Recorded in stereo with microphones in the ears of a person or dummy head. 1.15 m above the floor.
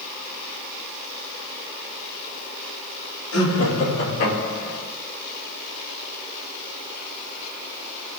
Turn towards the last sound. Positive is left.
turn(degrees=85)